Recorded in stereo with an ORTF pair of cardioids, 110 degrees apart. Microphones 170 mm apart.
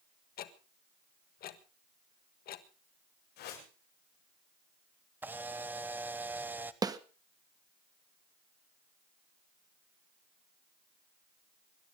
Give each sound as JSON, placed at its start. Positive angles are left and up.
{"t": 0.4, "sound": "ticking", "azimuth_deg": 65, "distance_m": 1.5}
{"t": 3.4, "sound": "a whoosh", "azimuth_deg": 70, "distance_m": 7.5}
{"t": 5.2, "sound": "a camera shutter", "azimuth_deg": -10, "distance_m": 1.1}
{"t": 6.8, "sound": "a snare drum", "azimuth_deg": -20, "distance_m": 1.2}